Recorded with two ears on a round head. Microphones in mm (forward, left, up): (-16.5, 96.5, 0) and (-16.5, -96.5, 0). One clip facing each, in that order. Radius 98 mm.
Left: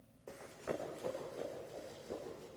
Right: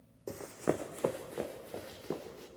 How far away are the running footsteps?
About 1.3 m.